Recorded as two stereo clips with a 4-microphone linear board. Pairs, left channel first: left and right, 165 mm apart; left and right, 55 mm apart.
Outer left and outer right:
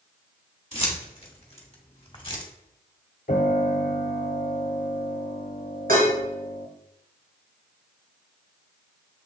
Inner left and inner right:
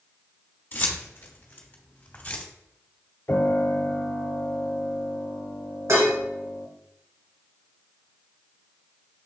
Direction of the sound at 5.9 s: 70° right (ahead or behind).